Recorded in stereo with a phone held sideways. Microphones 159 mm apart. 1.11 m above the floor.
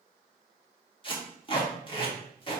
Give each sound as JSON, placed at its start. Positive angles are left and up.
{"t": 1.0, "sound": "tape being pulled", "side_deg": 35, "distance_m": 2.5}